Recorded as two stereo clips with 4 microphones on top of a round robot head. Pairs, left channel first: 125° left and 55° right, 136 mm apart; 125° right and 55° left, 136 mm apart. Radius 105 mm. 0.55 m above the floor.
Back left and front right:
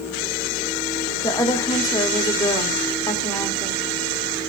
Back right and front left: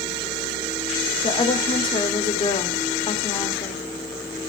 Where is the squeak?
I don't hear a squeak.